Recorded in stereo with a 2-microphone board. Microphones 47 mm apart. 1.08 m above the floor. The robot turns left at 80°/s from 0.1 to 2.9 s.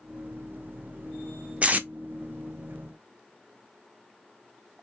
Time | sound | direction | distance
1.6 | tape being pulled | 30° right (ahead or behind) | 0.6 m